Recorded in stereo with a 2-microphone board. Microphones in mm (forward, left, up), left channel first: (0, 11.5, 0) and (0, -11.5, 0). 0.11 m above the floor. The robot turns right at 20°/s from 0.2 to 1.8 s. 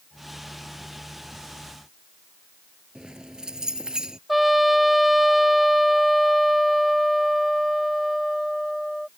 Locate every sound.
3.0 s keys jangling: 40° right (ahead or behind)
4.3 s a trumpet: 5° right (ahead or behind)